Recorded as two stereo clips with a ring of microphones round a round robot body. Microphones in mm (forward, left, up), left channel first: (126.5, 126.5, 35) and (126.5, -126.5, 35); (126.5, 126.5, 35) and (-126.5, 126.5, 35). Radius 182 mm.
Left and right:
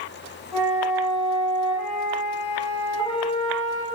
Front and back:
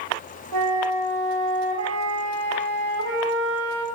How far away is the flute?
About 1.3 m.